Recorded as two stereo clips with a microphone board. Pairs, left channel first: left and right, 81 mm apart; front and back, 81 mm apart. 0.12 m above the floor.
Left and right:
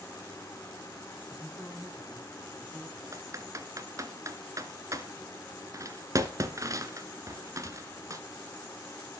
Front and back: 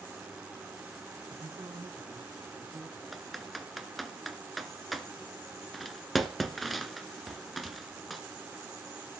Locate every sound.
1.3 s a man speaking: 175° left, 6 m
3.1 s typing on a keyboard: 90° right, 1.5 m